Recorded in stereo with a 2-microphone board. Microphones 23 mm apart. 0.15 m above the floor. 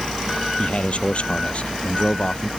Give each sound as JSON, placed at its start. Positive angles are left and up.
{"t": 0.6, "sound": "a man speaking", "side_deg": 55}